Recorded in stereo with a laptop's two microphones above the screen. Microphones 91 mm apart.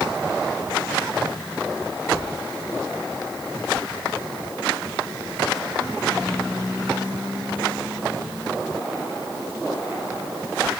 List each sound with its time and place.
Only background noise.